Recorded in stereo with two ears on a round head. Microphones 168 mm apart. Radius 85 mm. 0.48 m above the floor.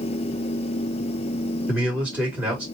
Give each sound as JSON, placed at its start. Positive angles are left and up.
{"t": 1.7, "sound": "a man speaking", "side_deg": -5, "distance_m": 1.5}